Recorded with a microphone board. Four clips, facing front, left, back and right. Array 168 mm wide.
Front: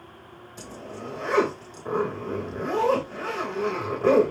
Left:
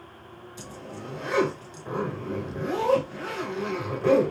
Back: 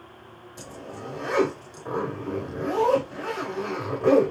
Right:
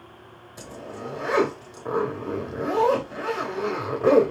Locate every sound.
0.6 s a zipper: 80° right, 1.1 m